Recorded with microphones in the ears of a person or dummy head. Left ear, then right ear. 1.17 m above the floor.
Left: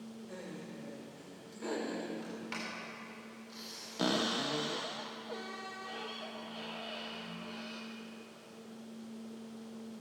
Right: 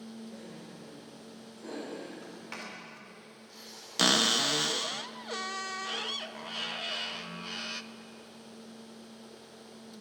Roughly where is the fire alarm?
No fire alarm in this recording.